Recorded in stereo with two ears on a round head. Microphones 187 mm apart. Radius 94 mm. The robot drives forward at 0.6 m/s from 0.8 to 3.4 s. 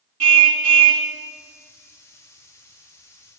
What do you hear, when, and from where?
0.2 s a car horn: 75° right (ahead or behind), 2.5 m